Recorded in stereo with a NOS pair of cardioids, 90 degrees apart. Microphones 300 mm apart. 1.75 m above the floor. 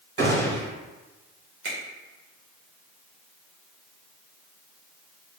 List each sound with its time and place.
0.2 s a gunshot: 55° right, 1.9 m
1.6 s a finger snap: 50° right, 1.7 m